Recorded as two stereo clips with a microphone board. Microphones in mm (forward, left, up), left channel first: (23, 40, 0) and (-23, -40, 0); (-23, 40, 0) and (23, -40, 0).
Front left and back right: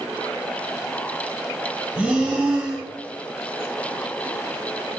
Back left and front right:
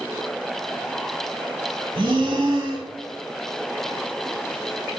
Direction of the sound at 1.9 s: 45° right.